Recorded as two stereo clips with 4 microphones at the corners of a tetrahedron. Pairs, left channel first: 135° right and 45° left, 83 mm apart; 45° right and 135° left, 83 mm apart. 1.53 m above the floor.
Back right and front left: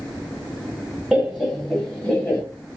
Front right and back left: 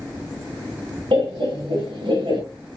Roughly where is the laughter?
Behind left.